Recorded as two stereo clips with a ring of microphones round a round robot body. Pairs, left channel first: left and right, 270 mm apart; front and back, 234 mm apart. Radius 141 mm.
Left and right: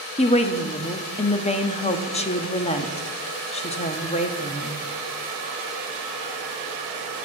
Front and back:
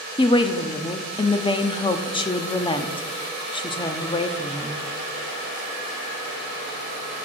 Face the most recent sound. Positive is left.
turn(degrees=50)